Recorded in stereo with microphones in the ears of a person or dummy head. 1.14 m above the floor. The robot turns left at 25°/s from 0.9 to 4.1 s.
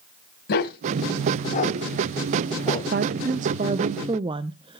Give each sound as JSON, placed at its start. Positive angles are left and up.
{"t": 0.5, "sound": "a dog barking", "side_deg": 65, "distance_m": 2.5}
{"t": 2.9, "sound": "a woman speaking", "side_deg": -45, "distance_m": 0.6}